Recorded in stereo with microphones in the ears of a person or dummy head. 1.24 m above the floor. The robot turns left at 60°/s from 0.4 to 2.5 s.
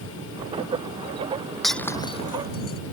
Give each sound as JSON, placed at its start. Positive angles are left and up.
{"t": 1.6, "sound": "breaking glass", "side_deg": -5}